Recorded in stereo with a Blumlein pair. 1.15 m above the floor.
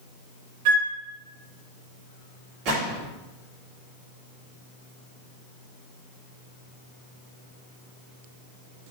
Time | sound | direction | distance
0.7 | a flute | 50° right | 3 m
2.6 | a gunshot | 40° right | 3.5 m